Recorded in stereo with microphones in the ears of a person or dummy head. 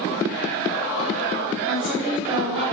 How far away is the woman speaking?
About 3.5 m.